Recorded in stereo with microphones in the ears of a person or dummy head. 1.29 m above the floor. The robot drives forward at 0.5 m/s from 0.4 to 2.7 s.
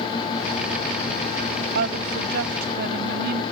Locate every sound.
1.8 s a woman speaking: 65° right (ahead or behind); by 3.4 s 60° right (ahead or behind)